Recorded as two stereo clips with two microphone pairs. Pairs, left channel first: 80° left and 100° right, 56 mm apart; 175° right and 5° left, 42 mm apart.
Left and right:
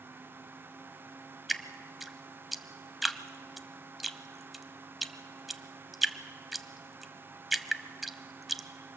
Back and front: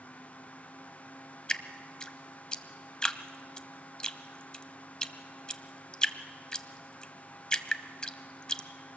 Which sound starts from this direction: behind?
Dripping, at 1.5 s.